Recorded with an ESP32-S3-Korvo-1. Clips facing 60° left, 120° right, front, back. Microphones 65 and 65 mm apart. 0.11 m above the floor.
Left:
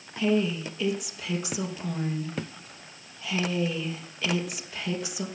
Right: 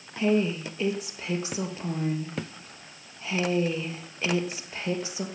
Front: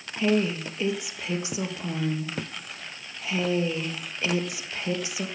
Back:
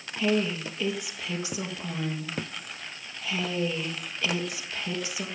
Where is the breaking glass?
No breaking glass in this recording.